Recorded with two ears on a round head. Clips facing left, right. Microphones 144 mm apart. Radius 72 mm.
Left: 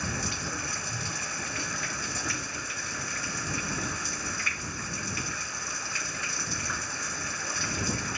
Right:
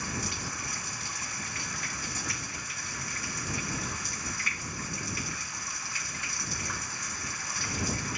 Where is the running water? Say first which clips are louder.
Left 2 dB; 70° left (ahead or behind).